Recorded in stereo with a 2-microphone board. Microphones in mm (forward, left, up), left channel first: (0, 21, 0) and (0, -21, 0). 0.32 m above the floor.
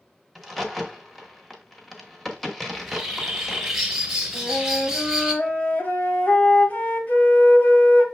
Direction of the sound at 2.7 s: 5° right (ahead or behind).